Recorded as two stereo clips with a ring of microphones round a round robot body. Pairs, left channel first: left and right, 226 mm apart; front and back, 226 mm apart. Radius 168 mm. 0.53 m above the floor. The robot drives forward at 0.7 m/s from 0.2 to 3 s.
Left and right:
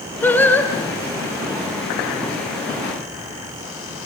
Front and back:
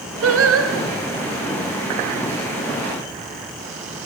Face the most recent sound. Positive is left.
turn(degrees=175)